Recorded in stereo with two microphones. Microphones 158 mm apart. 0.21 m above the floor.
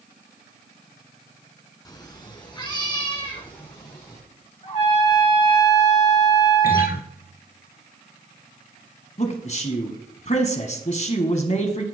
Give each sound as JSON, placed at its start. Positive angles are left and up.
{"t": 1.9, "sound": "a cat meowing", "side_deg": 25, "distance_m": 1.2}
{"t": 4.6, "sound": "a trumpet", "side_deg": 45, "distance_m": 4.0}
{"t": 6.6, "sound": "a guitar", "side_deg": 75, "distance_m": 0.8}
{"t": 9.2, "sound": "a man speaking", "side_deg": 45, "distance_m": 1.4}